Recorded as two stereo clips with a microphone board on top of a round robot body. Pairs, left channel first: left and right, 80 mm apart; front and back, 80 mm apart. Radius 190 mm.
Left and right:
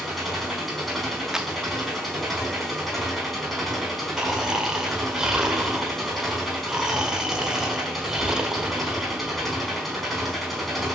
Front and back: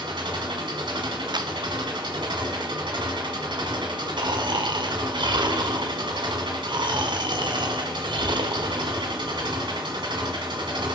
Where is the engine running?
Straight behind, 5 m.